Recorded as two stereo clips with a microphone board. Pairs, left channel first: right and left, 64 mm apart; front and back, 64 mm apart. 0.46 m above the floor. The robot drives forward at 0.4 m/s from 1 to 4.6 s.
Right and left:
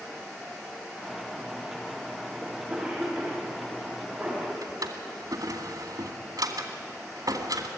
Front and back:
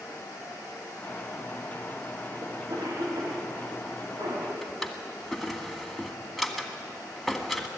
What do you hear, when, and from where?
2.4 s a cough: 165° left, 3 m; by 4.5 s 170° left, 3.5 m
4.6 s a drawer: 90° left, 2 m